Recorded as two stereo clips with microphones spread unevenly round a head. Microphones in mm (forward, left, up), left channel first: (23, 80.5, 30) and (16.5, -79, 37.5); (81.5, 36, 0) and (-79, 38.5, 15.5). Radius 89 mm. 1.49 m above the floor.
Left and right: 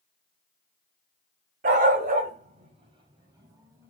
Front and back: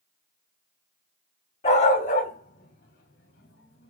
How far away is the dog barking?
About 3.5 m.